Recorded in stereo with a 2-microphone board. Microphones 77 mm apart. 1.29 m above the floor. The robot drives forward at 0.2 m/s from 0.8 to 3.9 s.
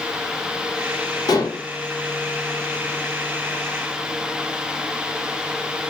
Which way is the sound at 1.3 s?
60° left (ahead or behind).